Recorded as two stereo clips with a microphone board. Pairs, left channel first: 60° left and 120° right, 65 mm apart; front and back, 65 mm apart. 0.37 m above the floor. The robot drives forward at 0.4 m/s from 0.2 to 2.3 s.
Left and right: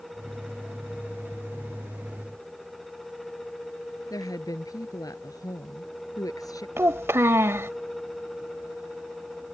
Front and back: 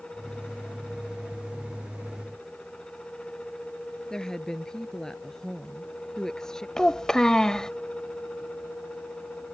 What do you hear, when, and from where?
4.1 s a woman speaking: 80° left
6.8 s a child speaking: 80° right